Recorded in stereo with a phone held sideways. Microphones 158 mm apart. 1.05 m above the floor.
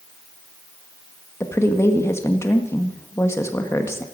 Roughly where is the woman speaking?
Centre.